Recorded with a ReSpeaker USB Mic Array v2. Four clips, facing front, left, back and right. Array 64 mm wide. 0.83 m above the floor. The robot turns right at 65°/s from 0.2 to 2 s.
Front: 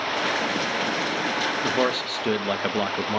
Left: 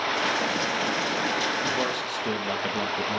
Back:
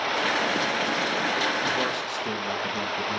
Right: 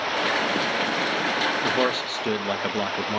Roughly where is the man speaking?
Ahead right.